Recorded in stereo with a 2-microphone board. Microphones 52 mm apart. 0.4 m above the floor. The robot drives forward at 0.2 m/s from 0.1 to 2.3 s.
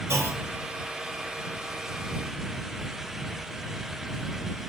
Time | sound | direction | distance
0.1 | a clunk | 65° right (ahead or behind) | 0.7 m